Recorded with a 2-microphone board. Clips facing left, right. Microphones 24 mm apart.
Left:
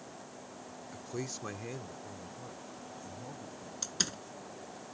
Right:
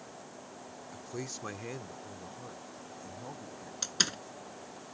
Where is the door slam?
20° right (ahead or behind).